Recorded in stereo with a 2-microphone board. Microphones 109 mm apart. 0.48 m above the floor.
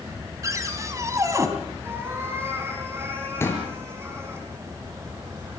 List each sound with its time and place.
0.4 s a cupboard door: 30° right (ahead or behind), 3 m
1.8 s a cat meowing: 20° right (ahead or behind), 8.5 m
3.4 s a pop: 20° left (ahead or behind), 4 m